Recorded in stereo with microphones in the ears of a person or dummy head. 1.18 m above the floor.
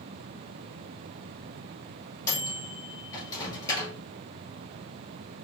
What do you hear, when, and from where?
2.3 s a microwave: 15° left (ahead or behind), 1.3 m